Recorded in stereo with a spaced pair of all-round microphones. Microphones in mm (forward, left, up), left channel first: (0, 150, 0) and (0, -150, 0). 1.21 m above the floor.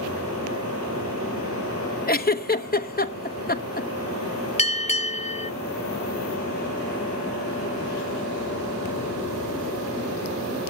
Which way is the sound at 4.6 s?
20° left (ahead or behind).